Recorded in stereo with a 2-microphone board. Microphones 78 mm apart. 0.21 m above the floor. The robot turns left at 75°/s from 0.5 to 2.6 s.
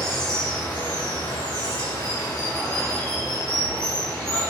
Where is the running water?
170° left, 1.9 m; by 4.5 s 10° left, 1.9 m.